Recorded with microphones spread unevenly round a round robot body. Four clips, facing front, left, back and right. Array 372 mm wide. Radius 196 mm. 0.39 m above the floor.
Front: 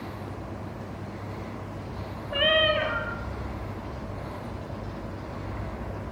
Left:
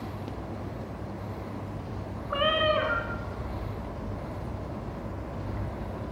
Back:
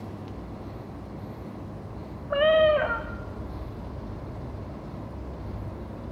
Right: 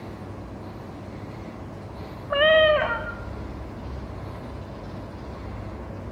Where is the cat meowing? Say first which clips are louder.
Right 8 dB, back 5 dB; 100° right, 1.3 m.